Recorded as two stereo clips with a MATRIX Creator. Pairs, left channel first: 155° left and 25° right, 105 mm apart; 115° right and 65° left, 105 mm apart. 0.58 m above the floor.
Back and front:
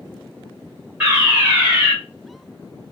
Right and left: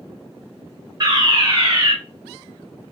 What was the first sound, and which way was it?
A fire alarm, 40° left.